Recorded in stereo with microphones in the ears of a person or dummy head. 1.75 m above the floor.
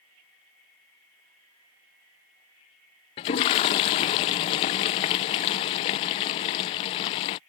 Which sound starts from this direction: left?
A toilet flushing, at 3.2 s.